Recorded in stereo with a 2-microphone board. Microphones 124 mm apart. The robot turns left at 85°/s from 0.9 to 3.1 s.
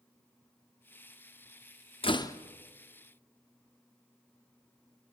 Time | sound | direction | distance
2.0 | a door slam | 45° left (ahead or behind) | 0.9 m